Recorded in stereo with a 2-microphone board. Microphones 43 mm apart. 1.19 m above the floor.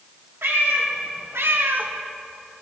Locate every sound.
0.4 s a cat meowing: 70° right (ahead or behind), 1.5 m; by 1.9 s 40° right (ahead or behind), 0.5 m